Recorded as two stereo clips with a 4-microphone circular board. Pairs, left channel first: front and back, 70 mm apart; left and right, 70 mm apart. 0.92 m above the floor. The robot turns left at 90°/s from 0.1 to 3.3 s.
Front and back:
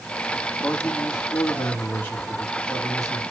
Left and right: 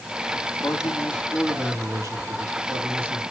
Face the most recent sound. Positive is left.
turn(degrees=-175)